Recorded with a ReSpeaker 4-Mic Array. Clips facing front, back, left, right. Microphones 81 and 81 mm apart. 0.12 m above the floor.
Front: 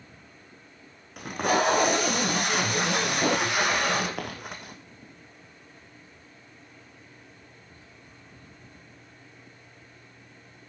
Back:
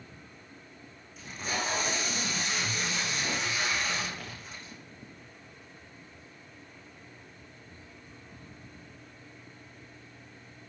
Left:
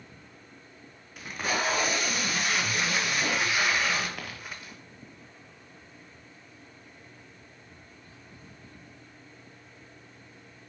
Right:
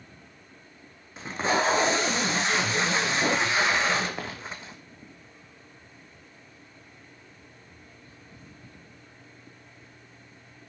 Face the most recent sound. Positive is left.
turn(degrees=-25)